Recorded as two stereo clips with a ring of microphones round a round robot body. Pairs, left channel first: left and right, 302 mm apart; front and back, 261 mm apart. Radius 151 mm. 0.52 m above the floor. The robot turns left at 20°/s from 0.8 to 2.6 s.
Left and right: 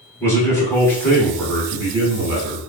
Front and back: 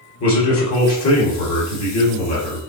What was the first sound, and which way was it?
A man speaking, 10° left.